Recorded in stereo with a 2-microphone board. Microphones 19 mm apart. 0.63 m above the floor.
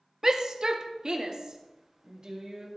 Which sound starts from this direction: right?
A shout, at 0.2 s.